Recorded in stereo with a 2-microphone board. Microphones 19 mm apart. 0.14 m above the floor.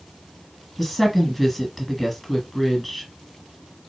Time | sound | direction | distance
0.8 | a woman speaking | 5° left (ahead or behind) | 1.8 m